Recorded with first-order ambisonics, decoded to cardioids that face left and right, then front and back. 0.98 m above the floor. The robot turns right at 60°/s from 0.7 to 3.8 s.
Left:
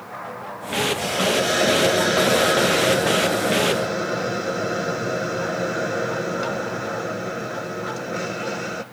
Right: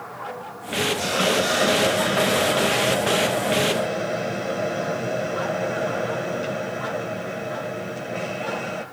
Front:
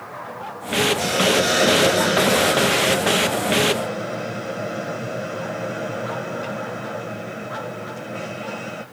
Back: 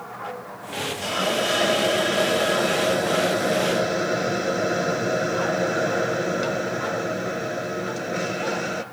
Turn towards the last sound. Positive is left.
turn(degrees=150)